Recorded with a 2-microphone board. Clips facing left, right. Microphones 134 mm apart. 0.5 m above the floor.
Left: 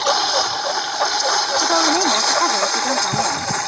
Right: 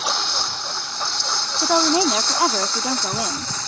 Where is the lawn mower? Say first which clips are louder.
Left 9 dB; 85° left; by 3.7 s 70° left (ahead or behind).